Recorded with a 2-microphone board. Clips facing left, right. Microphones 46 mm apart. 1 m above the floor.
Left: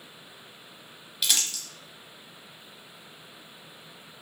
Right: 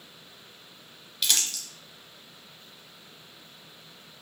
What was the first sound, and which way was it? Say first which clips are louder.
Crumpling: even; 5° left (ahead or behind).